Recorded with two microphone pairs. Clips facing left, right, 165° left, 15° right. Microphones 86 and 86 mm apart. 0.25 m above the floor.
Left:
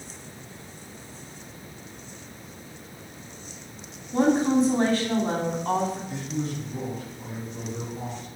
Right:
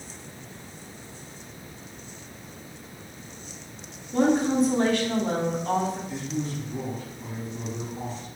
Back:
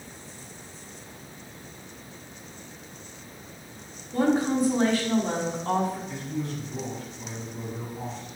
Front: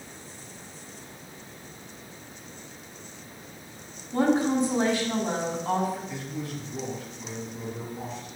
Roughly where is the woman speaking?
Ahead left.